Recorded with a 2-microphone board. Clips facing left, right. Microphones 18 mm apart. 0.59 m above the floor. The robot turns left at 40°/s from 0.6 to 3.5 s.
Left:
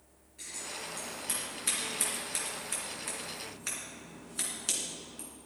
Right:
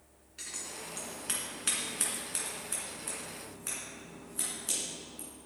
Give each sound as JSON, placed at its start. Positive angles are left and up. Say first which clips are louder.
{"t": 0.4, "sound": "scissors", "louder": "left 1 dB", "side_deg": -65, "distance_m": 3.0}